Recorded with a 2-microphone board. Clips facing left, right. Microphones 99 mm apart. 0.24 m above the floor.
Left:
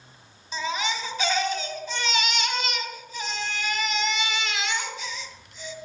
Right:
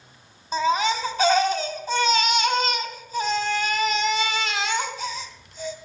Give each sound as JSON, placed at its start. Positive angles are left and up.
{"t": 0.5, "sound": "a baby crying", "side_deg": -40, "distance_m": 1.2}